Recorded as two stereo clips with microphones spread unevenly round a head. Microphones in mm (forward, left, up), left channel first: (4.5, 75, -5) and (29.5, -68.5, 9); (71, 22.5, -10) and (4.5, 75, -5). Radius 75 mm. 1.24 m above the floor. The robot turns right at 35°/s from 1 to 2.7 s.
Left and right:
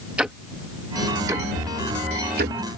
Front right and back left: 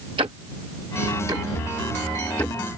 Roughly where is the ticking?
Behind.